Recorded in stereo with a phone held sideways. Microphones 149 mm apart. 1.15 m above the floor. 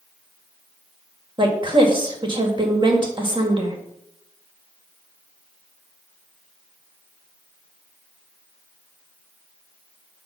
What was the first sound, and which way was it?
A woman speaking, 35° right (ahead or behind).